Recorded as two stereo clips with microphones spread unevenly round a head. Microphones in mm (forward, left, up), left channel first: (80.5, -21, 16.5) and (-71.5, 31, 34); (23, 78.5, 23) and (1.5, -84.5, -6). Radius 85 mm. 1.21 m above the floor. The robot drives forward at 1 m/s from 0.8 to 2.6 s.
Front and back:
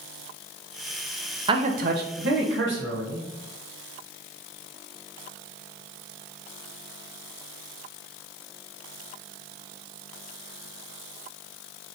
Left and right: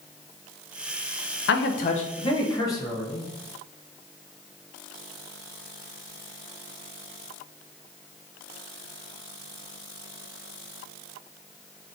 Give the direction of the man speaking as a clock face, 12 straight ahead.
9 o'clock.